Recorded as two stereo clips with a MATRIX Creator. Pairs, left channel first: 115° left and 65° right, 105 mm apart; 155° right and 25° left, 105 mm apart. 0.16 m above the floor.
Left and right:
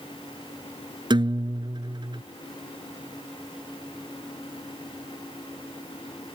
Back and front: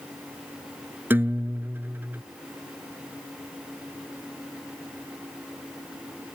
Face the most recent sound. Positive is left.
turn(degrees=-45)